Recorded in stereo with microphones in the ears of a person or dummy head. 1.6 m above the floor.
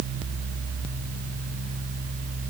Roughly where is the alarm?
I don't hear an alarm.